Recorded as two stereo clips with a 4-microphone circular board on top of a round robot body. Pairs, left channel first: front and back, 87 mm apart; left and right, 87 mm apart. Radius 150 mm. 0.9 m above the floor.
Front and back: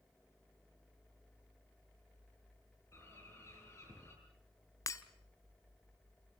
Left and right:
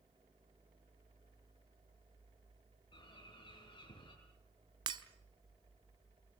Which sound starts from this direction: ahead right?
Breaking glass, at 4.9 s.